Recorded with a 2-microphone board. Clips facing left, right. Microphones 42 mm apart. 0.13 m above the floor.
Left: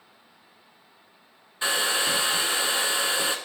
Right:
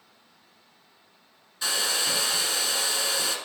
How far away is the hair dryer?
About 0.6 m.